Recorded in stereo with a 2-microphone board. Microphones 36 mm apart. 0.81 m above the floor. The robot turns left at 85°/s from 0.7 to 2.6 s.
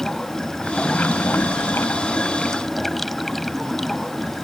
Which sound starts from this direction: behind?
Running water, at 0.0 s.